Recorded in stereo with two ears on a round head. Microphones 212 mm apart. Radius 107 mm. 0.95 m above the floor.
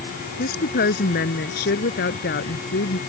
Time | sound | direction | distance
0.4 | a woman speaking | 40° left (ahead or behind) | ?